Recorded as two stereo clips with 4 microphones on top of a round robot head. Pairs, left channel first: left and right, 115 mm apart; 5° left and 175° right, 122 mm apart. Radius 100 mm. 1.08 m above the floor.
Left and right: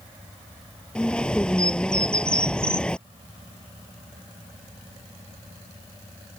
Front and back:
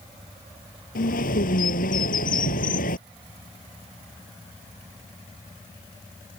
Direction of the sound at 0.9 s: 10° left.